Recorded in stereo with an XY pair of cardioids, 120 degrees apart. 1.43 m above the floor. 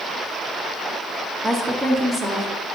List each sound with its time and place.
1.4 s a woman speaking: 10° right, 1.2 m; by 2.5 s 5° right, 1.8 m